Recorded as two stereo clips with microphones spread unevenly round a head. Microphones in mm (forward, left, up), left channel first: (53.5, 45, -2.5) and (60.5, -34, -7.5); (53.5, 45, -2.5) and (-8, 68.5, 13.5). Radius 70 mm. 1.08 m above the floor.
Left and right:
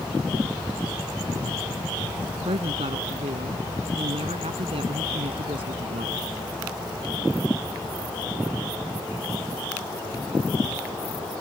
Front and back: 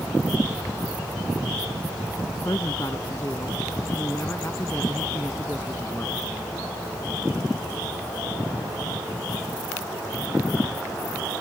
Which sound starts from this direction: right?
A woman speaking, at 2.5 s.